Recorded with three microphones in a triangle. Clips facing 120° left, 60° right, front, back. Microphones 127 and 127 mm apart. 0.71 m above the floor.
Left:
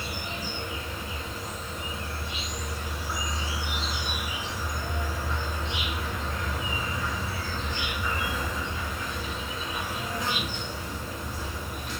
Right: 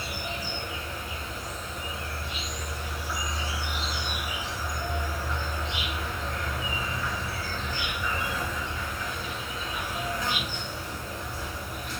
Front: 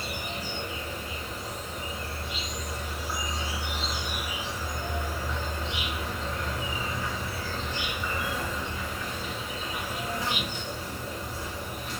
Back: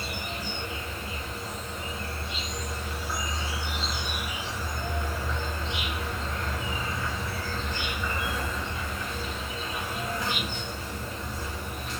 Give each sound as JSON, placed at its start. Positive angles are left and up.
{"t": 0.0, "sound": "an insect", "azimuth_deg": 70, "distance_m": 2.0}